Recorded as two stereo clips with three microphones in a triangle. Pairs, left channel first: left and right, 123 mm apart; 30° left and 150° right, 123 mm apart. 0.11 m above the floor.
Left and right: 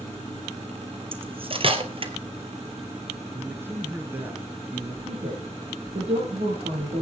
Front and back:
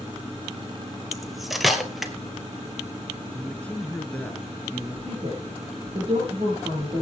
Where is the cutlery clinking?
60° right, 1.5 m.